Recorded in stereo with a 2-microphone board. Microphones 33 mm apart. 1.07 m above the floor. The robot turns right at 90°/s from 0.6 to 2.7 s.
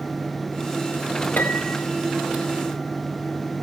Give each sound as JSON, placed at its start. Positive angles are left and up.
{"t": 1.4, "sound": "a piano", "azimuth_deg": 95, "distance_m": 2.5}